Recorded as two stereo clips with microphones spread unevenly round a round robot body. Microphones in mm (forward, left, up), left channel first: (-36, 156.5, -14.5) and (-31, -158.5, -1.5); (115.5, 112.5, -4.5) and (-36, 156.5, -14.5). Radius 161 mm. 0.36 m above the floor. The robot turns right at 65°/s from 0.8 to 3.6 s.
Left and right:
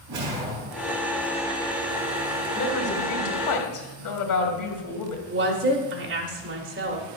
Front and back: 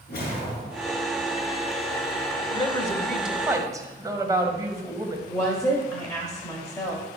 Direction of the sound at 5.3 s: 85° right.